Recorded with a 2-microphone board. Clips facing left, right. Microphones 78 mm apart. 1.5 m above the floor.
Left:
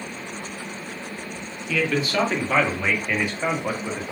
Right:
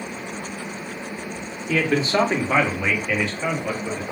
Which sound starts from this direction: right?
A man speaking, at 1.7 s.